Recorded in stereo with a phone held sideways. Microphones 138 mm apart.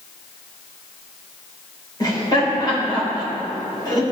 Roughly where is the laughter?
Left.